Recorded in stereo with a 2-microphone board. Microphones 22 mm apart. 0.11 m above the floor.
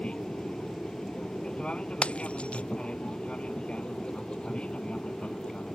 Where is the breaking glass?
65° left (ahead or behind).